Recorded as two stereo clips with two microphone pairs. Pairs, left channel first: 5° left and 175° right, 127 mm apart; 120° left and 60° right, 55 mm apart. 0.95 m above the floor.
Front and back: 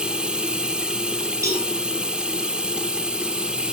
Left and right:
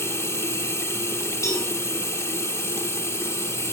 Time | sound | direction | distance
0.0 | running water | 105° left | 0.8 m
1.4 | a cowbell | 125° left | 5.5 m